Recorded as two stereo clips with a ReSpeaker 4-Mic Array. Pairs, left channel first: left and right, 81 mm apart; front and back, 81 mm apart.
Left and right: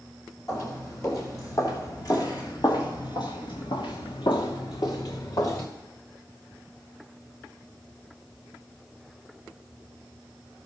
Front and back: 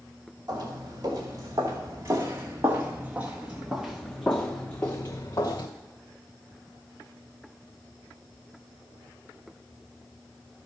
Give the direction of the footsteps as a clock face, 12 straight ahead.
7 o'clock.